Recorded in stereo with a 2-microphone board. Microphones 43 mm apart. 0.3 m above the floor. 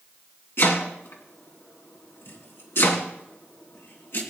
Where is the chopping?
65° left (ahead or behind), 2.5 m.